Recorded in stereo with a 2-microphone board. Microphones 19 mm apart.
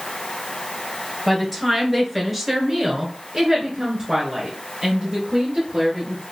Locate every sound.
1.3 s a woman speaking: 5° left (ahead or behind), 1.4 m; by 6.2 s 30° right (ahead or behind), 2 m